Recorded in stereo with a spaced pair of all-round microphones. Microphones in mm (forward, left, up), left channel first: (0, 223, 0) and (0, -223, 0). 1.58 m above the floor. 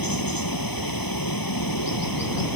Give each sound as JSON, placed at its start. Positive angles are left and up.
{"t": 0.0, "sound": "running water", "side_deg": 50}